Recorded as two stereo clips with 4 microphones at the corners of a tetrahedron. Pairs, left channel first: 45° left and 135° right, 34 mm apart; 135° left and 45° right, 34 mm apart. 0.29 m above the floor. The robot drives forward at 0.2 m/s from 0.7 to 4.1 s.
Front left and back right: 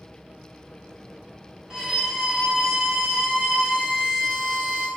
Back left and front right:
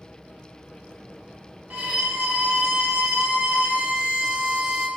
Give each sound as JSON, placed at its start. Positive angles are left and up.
{"t": 1.7, "sound": "a violin", "azimuth_deg": -65, "distance_m": 1.1}